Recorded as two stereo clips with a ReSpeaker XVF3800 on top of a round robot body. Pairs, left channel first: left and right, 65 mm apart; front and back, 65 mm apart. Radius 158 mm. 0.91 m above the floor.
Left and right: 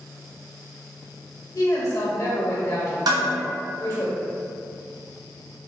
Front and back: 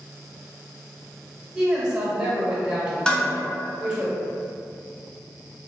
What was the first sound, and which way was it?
A woman speaking, 105° left.